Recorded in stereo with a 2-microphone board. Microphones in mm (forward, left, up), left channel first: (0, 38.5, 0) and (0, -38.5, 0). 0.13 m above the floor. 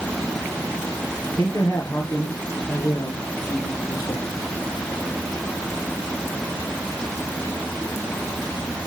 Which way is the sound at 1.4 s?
55° left (ahead or behind).